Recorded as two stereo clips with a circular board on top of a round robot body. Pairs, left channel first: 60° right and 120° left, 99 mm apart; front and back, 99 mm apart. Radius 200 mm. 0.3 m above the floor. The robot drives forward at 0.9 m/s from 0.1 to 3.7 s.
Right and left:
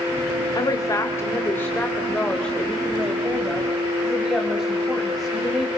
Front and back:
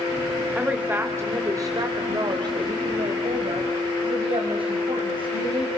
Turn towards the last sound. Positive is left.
turn(degrees=-150)